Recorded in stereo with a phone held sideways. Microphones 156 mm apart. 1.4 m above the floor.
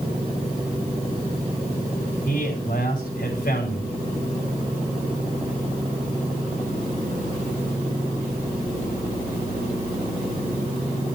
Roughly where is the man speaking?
Left.